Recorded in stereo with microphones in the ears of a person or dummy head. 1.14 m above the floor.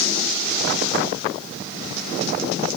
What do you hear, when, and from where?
Only background noise.